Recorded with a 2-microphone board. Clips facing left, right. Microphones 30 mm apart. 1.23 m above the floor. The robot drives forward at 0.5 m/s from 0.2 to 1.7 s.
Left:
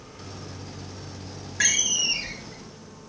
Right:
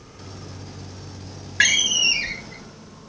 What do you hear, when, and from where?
1.6 s a door slam: 55° right (ahead or behind), 0.5 m; by 3.1 s 50° right (ahead or behind), 0.5 m